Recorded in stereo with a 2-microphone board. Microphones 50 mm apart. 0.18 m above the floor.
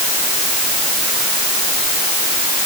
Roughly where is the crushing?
No crushing in this recording.